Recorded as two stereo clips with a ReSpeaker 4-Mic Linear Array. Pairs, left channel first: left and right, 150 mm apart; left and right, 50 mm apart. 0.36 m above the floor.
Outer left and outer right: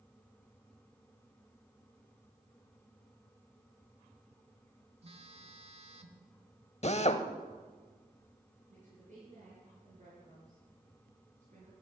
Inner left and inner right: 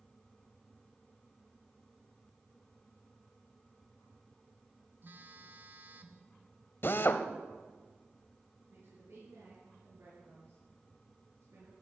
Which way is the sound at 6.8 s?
45° left (ahead or behind).